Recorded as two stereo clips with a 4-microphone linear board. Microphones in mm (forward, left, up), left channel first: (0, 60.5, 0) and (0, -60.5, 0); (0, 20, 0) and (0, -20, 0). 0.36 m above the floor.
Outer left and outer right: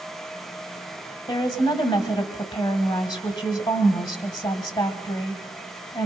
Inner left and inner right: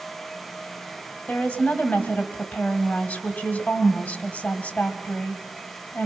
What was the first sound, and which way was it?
A woman speaking, 40° left (ahead or behind).